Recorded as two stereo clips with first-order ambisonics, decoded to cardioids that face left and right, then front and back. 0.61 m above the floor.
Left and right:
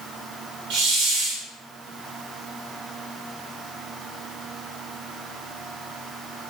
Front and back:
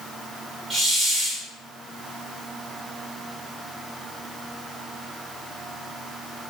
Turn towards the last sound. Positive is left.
turn(degrees=-95)